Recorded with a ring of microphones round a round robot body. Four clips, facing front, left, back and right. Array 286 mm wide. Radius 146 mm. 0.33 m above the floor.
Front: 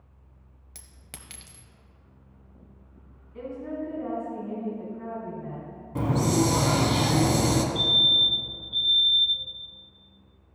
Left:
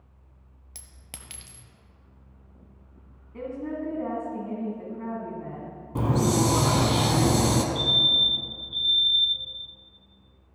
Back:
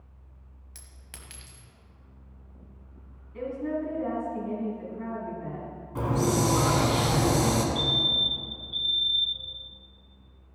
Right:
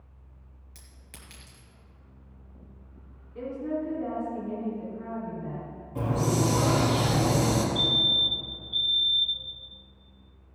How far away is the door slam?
I don't hear a door slam.